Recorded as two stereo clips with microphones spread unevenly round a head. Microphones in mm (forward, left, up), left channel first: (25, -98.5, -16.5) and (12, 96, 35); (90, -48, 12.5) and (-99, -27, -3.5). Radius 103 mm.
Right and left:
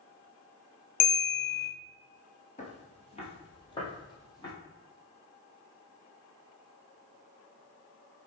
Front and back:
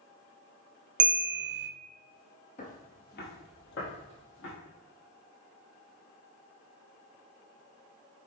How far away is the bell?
About 0.6 m.